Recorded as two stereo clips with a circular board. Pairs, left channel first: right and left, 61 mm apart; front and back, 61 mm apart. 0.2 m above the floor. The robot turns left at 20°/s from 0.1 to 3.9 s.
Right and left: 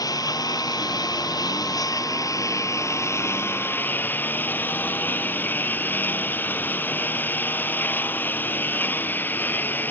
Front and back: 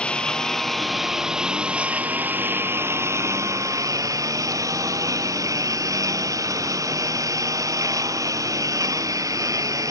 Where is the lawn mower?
75° right; by 9.9 s 150° right.